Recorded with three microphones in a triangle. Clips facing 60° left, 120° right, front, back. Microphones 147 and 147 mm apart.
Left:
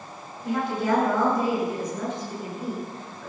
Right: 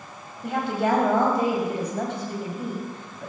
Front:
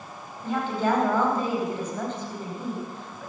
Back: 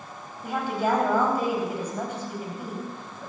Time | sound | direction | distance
0.4 | a woman speaking | 100° right | 4.5 m